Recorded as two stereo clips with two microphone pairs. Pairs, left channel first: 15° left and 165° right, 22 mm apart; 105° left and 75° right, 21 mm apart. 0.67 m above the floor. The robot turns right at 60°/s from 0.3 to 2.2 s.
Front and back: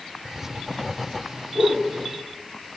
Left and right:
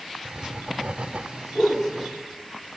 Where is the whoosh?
160° left, 7 m; by 1.9 s straight behind, 7 m.